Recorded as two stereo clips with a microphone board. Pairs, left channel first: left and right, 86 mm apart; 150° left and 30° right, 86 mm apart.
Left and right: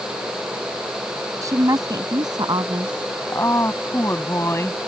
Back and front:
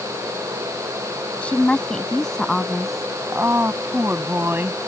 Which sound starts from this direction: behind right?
A woman speaking, at 1.4 s.